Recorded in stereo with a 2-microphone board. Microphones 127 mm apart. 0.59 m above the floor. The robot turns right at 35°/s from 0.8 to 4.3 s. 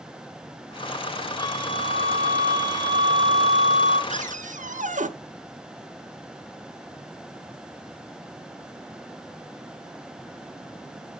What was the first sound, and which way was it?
A flute, 35° left.